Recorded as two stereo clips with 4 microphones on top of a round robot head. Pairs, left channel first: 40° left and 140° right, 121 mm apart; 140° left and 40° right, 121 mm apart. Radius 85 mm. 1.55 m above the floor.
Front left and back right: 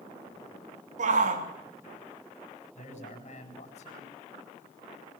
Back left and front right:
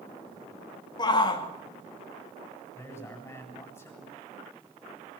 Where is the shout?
165° right, 3 m.